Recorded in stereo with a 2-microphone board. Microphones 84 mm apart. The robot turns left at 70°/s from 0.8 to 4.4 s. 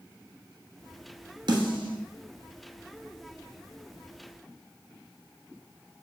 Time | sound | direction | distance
1.5 | a snare drum | 60° right (ahead or behind) | 1.1 m